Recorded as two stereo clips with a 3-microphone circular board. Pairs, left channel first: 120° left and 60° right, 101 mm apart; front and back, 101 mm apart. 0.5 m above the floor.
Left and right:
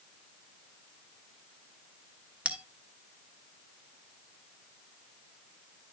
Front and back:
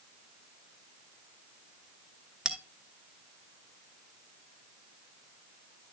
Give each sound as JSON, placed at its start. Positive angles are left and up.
{"t": 2.5, "sound": "a bell", "azimuth_deg": -110, "distance_m": 1.0}